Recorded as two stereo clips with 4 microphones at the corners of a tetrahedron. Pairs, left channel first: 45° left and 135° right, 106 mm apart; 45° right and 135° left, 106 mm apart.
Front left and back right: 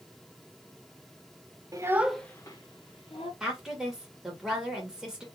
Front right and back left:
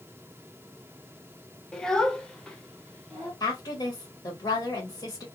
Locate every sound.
1.7 s a child speaking: 125° right, 0.6 m; by 3.3 s 40° left, 1.1 m
3.4 s a woman speaking: 55° right, 1.7 m